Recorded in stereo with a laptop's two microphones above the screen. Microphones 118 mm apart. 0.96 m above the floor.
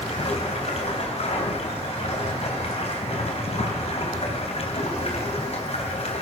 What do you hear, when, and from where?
0.0 s running water: 65° left (ahead or behind), 3 m